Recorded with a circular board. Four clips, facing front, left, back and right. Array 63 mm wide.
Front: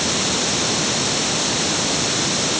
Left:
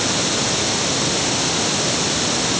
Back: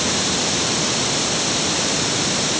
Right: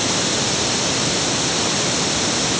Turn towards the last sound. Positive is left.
No sound to turn to.